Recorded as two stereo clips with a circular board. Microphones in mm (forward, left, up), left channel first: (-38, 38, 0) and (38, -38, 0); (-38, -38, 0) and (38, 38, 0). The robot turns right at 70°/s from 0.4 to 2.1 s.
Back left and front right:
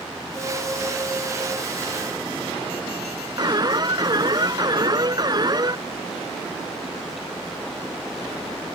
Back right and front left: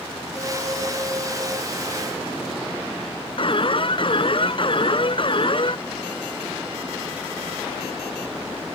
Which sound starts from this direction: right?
An alarm, at 3.4 s.